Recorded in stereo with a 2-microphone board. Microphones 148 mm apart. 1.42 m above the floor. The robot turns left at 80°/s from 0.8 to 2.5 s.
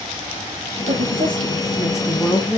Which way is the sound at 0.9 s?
70° right.